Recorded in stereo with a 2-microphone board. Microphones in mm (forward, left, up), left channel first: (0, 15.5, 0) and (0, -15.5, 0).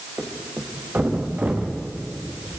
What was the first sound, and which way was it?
A thud, 80° right.